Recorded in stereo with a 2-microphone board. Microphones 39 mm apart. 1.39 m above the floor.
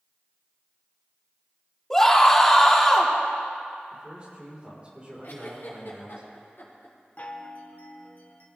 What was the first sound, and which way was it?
A scream, 10° left (ahead or behind).